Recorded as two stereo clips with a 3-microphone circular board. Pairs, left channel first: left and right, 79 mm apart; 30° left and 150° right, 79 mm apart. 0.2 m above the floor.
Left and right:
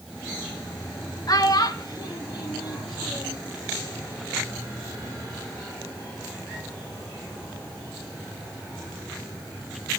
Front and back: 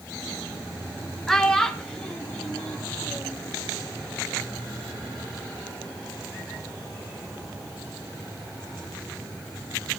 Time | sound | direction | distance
1.3 | a child speaking | 115° left | 1.6 m